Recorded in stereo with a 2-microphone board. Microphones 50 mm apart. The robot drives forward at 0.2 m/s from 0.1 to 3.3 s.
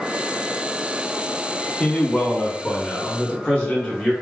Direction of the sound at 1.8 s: 20° left (ahead or behind).